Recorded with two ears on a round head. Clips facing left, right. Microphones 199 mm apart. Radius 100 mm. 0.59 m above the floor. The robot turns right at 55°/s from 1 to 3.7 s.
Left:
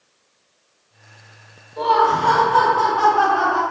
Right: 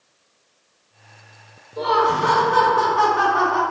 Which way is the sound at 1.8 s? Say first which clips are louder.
Left 1 dB; 145° right.